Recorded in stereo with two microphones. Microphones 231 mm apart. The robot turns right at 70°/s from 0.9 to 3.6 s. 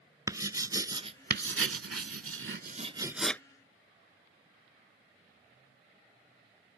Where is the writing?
15° right (ahead or behind); by 3.4 s 10° left (ahead or behind).